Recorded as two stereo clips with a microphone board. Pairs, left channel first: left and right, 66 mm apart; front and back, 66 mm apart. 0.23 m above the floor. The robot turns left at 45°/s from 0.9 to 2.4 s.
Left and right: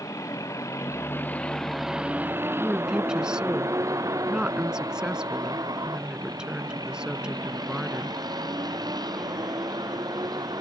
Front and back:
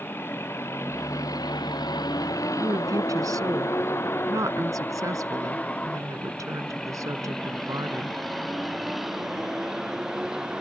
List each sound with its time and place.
0.0 s a vehicle: 55° left; by 10.6 s 100° right
2.6 s a woman speaking: 165° right